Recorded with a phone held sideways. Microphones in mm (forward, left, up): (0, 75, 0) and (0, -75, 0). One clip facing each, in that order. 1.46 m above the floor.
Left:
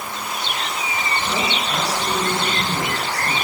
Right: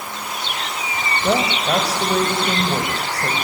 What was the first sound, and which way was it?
A woman speaking, 80° right.